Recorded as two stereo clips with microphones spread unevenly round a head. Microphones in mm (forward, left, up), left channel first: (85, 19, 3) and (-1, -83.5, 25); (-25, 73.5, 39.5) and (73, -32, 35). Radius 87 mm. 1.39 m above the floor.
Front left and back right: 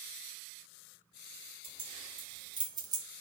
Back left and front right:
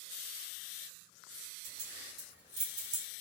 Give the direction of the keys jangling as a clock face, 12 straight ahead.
3 o'clock.